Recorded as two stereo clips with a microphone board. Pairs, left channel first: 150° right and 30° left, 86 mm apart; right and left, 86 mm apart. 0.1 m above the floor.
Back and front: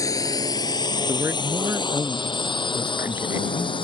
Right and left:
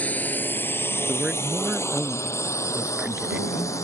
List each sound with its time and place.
0.0 s a drone: 155° right; by 3.9 s 145° right
1.1 s a man speaking: 25° left